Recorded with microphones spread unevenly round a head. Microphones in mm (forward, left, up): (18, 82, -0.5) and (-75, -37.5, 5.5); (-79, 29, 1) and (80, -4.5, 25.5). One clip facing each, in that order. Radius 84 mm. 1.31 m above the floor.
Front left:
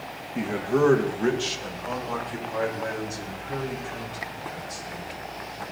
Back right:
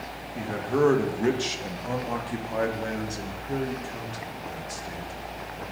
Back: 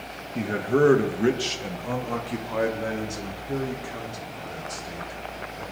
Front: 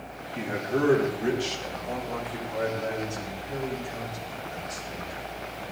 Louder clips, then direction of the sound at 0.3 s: Front left 2 dB, back 5 dB; 125° left.